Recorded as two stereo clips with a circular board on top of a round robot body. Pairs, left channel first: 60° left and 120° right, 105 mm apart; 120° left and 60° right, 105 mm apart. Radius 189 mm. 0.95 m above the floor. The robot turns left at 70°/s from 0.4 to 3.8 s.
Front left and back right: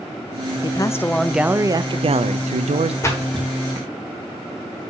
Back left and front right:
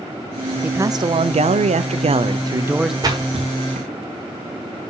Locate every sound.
0.6 s a man speaking: 15° left, 0.6 m; by 2.9 s 145° right, 0.6 m
3.0 s a splash: 5° right, 1.3 m; by 3.9 s 60° right, 1.3 m